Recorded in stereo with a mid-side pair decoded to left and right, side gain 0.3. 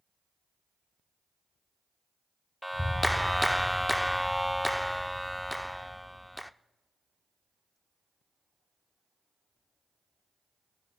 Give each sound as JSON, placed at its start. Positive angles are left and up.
{"t": 2.6, "sound": "a clap", "azimuth_deg": 5, "distance_m": 0.7}